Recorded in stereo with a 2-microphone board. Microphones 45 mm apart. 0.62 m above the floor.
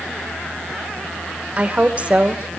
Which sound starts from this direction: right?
A woman speaking, at 1.6 s.